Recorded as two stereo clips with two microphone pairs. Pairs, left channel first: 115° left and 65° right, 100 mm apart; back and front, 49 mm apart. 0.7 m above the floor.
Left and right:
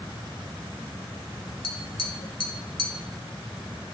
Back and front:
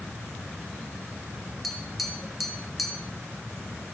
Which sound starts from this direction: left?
Tapping, at 1.6 s.